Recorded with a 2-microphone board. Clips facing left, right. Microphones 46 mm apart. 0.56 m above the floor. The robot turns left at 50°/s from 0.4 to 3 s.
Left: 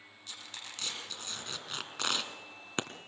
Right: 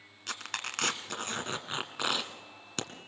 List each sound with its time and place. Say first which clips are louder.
0.3 s tearing paper: right 10 dB; 80° right, 1.5 m; by 2.9 s 30° left (ahead or behind), 1.5 m